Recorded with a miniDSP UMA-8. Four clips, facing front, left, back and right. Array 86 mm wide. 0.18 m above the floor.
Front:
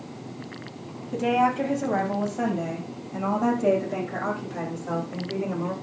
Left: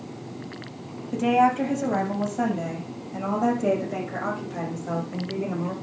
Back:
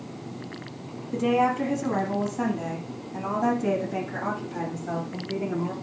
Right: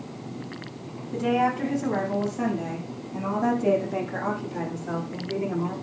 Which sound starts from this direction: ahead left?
A woman speaking, at 1.1 s.